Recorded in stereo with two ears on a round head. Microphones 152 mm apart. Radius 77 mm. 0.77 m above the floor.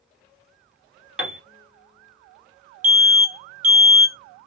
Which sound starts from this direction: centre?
A piano, at 1.2 s.